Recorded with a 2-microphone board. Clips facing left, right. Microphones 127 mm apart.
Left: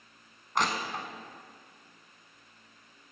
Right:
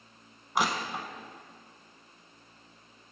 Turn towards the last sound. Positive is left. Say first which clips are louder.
# right 1 dB
turn(degrees=-10)  # may be behind; listen again after turning